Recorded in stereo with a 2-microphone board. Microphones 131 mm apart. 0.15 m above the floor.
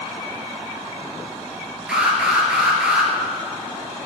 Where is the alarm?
5° right (ahead or behind), 3 m.